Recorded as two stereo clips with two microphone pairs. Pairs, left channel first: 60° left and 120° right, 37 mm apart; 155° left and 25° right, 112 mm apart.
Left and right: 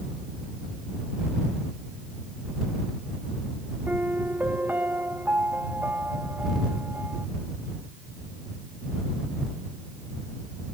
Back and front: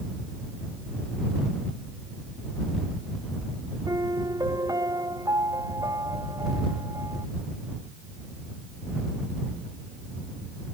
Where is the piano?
85° right.